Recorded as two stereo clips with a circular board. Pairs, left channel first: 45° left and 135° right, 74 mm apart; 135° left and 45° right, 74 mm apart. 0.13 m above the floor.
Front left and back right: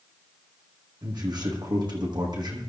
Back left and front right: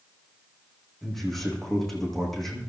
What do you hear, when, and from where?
1.0 s a man speaking: 140° right, 7 m